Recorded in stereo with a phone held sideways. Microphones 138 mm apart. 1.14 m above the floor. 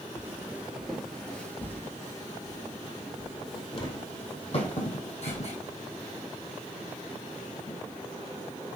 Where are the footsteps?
20° right (ahead or behind), 1.3 m; by 7.8 s 65° left (ahead or behind), 3.5 m.